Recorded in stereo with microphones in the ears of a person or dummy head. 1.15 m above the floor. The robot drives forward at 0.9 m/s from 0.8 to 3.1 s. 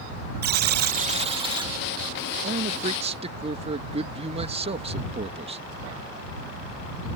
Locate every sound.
0.4 s a buzzer: 55° right (ahead or behind); by 1.7 s 20° right (ahead or behind)
2.4 s a man speaking: 45° right (ahead or behind); by 5.6 s 30° right (ahead or behind)